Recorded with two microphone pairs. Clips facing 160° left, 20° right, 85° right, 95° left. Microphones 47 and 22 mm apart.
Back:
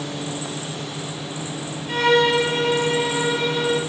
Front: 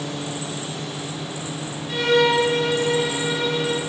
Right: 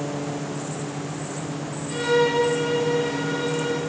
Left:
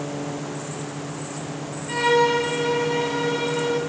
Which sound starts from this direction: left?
A violin, at 1.9 s.